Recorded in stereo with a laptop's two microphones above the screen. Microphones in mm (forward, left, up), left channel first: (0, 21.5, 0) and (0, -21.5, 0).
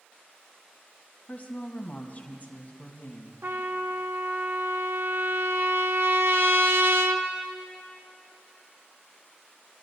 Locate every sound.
1.3 s a woman speaking: 35° left (ahead or behind), 1.5 m
3.4 s a trumpet: 65° right (ahead or behind), 0.7 m